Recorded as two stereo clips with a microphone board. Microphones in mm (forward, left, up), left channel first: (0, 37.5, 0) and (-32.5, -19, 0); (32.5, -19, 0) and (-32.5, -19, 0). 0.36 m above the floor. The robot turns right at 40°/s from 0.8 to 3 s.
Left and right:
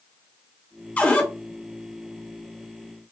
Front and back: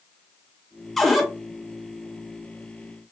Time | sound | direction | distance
1.0 | a cupboard door | 85° left | 0.8 m